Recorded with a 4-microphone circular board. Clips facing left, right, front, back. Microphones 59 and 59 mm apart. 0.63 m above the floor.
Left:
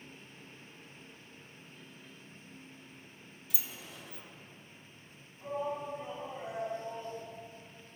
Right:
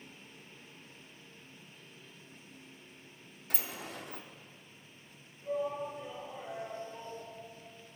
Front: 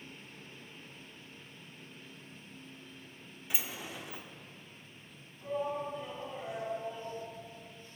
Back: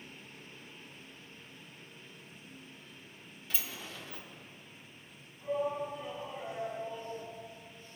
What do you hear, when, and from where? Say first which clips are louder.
3.5 s a sliding door: right 6 dB, front 2 dB; 70° right, 0.7 m
5.4 s a shout: right 1 dB, back 2 dB; 90° left, 4.5 m